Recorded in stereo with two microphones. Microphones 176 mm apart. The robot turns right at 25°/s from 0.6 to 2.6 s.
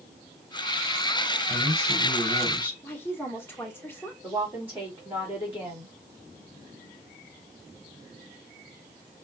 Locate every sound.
1.5 s a man speaking: 15° left (ahead or behind), 3.5 m; by 2.7 s 10° right (ahead or behind), 3.5 m
2.8 s a woman speaking: 15° left (ahead or behind), 1.3 m
4.2 s a woman speaking: 10° right (ahead or behind), 2.5 m